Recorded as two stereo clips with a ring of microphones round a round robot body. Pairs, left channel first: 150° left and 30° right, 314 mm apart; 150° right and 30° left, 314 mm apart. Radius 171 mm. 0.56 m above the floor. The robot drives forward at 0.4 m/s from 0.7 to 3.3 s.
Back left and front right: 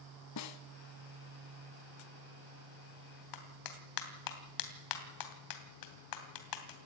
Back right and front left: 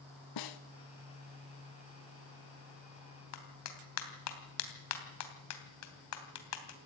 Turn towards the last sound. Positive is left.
turn(degrees=170)